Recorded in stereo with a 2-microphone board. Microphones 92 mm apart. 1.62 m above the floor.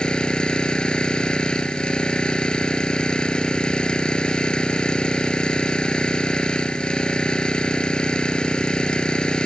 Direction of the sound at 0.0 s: 10° left (ahead or behind).